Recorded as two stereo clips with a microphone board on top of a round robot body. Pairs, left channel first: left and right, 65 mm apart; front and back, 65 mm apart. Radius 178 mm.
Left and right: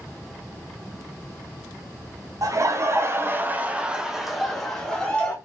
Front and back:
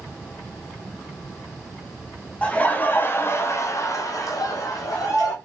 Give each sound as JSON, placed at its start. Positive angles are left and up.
{"t": 2.4, "sound": "laughter", "azimuth_deg": -65, "distance_m": 1.4}